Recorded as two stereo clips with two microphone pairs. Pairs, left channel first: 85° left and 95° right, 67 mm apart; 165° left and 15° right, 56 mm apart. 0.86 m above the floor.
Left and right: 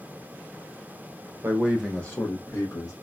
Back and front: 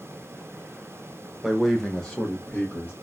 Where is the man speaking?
95° right, 0.7 m; by 2.9 s 100° left, 1.3 m.